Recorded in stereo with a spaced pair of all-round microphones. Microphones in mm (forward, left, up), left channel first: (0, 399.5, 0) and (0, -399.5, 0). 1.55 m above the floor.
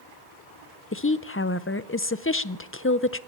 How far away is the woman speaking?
About 0.5 m.